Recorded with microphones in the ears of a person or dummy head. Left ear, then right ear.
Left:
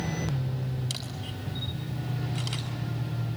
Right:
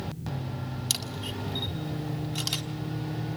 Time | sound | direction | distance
0.9 | a camera shutter | 25° right (ahead or behind) | 4 m